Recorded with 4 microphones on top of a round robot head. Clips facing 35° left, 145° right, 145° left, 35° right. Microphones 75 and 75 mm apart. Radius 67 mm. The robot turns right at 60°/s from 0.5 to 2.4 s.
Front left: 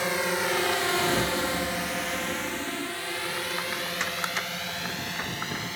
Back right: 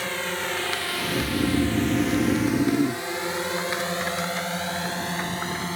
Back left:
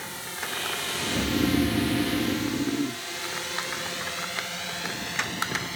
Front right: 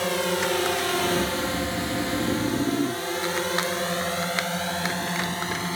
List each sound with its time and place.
0.0 s a drone: 40° right; by 5.8 s 90° right
1.1 s snoring: 165° left; by 3.0 s 120° right